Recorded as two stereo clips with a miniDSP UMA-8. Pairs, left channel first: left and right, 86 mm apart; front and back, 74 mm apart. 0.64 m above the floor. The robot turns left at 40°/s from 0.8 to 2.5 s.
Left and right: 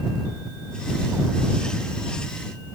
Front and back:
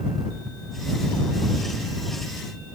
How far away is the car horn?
No car horn in this recording.